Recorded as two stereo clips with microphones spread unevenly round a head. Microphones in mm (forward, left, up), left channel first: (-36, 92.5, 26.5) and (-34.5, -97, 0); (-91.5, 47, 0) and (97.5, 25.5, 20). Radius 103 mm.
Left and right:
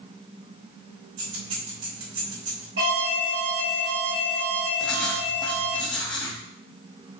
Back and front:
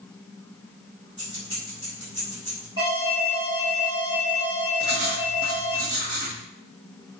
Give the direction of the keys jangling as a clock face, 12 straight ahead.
3 o'clock.